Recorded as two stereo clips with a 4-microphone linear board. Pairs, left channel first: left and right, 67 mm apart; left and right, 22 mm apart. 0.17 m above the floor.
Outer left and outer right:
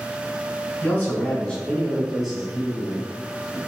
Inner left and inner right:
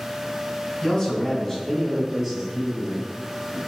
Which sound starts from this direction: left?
A man speaking, at 0.8 s.